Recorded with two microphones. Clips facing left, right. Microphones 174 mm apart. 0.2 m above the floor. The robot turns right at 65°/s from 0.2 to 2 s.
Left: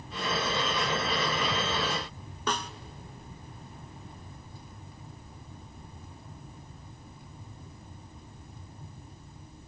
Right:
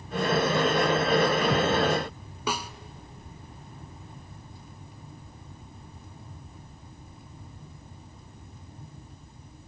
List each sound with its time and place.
2.5 s a snare drum: 10° right (ahead or behind), 0.7 m